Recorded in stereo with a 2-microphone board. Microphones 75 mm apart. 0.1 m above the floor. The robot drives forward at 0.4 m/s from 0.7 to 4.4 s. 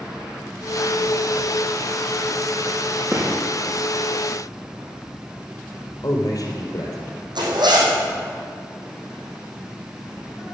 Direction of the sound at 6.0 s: 50° left (ahead or behind).